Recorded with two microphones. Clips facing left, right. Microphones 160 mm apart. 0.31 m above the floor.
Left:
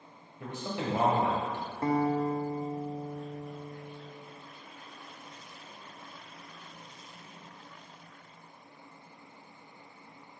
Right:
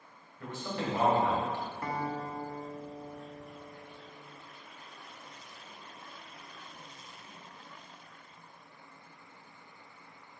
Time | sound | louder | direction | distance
0.4 | a man speaking | left 1 dB | 20° left (ahead or behind) | 1.5 m
1.8 | a guitar | left 11 dB | 30° left (ahead or behind) | 0.5 m